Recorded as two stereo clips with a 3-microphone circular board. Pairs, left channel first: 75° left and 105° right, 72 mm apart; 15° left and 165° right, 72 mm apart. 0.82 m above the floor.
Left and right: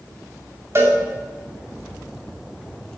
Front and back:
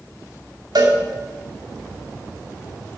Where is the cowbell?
155° right, 2 m.